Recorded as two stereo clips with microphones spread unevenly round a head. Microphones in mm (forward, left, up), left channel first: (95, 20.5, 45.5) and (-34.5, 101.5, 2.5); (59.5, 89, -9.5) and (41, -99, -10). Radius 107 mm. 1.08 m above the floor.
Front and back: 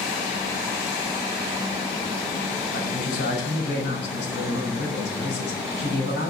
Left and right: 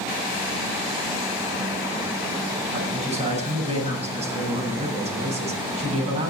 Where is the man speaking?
40° right, 7.5 m.